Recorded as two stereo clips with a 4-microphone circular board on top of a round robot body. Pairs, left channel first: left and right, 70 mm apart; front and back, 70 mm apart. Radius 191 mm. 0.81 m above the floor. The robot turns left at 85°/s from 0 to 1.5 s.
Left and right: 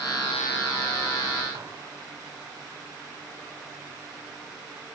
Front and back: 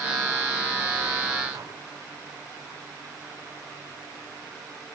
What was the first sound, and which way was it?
Dishes clattering, 140° right.